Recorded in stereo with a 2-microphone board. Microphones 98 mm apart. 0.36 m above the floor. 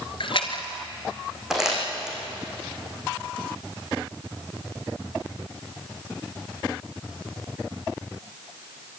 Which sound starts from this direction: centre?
Crumpling, at 1.5 s.